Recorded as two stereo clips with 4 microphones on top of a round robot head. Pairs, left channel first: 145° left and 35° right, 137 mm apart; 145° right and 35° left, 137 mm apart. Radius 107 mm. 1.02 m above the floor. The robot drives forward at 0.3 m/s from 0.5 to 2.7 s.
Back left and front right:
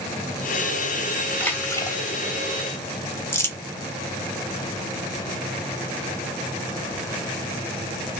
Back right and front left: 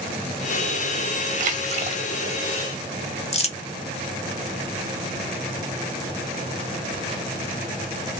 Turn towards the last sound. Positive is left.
turn(degrees=-145)